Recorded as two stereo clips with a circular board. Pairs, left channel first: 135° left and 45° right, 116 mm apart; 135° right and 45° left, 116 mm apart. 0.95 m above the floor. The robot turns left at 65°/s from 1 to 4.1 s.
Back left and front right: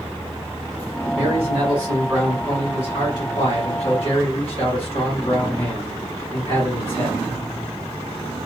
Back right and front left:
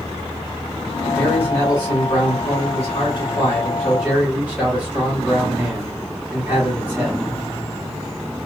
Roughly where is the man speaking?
Ahead right.